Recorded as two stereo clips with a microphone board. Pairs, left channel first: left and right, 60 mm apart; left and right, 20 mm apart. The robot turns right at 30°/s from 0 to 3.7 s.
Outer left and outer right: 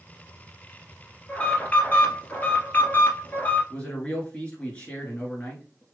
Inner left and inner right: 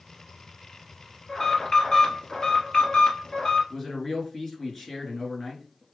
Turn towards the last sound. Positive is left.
turn(degrees=20)  # may be behind; listen again after turning